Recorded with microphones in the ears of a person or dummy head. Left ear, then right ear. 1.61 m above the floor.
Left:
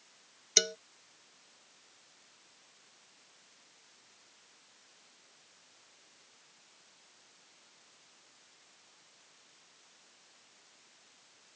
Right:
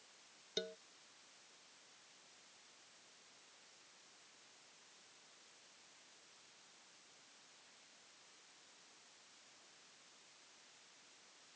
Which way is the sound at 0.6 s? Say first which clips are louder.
Left 16 dB; 60° left (ahead or behind).